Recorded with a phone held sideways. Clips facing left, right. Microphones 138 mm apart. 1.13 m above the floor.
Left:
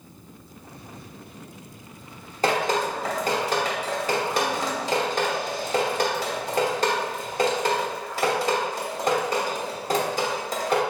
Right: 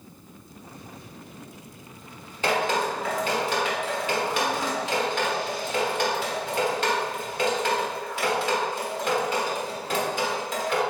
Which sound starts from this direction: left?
Dripping, at 2.4 s.